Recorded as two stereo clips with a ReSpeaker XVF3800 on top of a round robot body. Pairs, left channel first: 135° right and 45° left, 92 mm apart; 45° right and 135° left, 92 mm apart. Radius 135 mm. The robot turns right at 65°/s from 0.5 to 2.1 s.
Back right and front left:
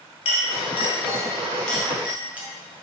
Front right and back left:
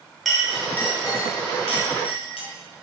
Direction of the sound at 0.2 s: 135° right.